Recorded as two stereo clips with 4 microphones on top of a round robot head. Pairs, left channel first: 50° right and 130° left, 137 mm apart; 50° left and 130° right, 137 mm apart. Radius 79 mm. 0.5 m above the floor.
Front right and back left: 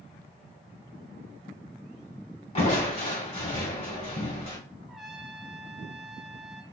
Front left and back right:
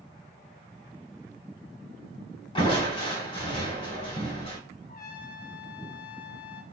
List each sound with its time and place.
2.5 s crushing: 5° right, 2.5 m
4.9 s a trumpet: 40° left, 0.8 m